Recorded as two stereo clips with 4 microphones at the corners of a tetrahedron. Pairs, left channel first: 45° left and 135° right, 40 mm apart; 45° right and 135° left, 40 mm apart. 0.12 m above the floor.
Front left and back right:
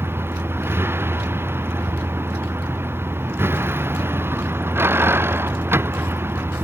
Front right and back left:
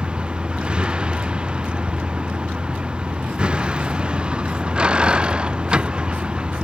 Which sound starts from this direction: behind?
A vehicle, at 0.0 s.